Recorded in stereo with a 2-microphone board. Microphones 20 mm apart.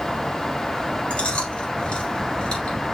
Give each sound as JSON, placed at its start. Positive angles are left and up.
{"t": 1.1, "sound": "chewing", "side_deg": 70, "distance_m": 4.5}